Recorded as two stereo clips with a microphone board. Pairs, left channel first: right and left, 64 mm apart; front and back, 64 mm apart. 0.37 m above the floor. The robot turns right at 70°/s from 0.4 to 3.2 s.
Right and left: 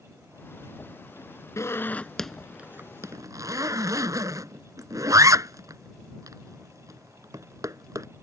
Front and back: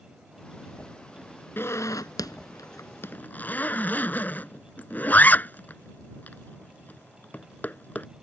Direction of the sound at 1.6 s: 55° right.